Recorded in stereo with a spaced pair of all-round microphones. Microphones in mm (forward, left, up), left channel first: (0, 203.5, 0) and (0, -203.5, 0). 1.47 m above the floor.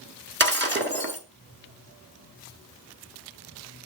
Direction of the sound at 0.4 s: 25° right (ahead or behind).